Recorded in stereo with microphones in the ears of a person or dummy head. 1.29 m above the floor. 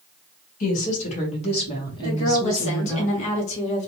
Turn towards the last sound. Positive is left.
turn(degrees=40)  # may be behind; listen again after turning